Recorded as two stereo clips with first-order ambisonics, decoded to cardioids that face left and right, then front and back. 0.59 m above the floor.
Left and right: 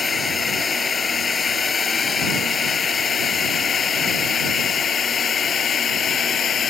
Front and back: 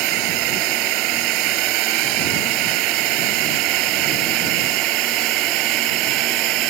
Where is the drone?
165° left; by 6.7 s 150° left.